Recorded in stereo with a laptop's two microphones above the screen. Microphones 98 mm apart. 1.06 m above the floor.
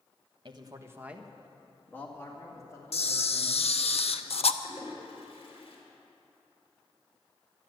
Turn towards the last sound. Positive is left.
turn(degrees=60)  # may be behind; listen again after turning